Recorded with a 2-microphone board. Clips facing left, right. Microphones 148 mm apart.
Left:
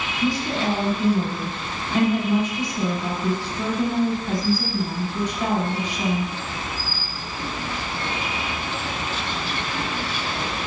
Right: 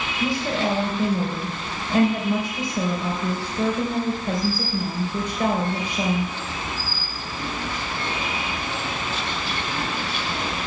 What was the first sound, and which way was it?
A woman speaking, 60° right (ahead or behind).